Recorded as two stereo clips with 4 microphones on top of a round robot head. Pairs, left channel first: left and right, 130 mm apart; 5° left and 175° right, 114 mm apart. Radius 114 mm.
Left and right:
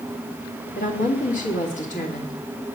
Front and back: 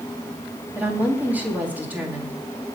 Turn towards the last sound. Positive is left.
turn(degrees=110)